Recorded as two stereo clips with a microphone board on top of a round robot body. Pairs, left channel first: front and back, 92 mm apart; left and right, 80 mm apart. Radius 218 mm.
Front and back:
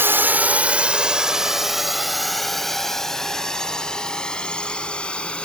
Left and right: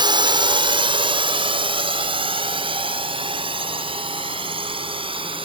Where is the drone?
115° right; by 5.5 s 80° right.